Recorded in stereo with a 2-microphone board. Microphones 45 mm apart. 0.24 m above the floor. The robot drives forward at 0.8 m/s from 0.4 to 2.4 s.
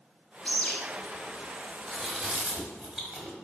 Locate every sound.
0.5 s a bird: 20° left (ahead or behind), 0.8 m; by 0.8 s 25° left (ahead or behind), 0.7 m
1.9 s chewing: 20° right (ahead or behind), 1.0 m